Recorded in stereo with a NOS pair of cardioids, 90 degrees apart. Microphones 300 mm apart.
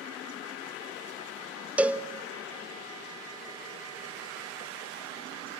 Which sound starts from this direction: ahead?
A cowbell, at 1.8 s.